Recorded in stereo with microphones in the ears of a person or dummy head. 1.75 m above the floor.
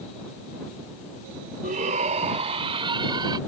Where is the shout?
40° right (ahead or behind); by 3.4 s 20° right (ahead or behind).